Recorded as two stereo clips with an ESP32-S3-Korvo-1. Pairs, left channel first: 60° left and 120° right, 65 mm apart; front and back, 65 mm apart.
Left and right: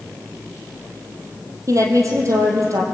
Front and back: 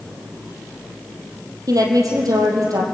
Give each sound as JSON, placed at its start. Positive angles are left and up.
{"t": 1.7, "sound": "a woman speaking", "azimuth_deg": -160, "distance_m": 5.0}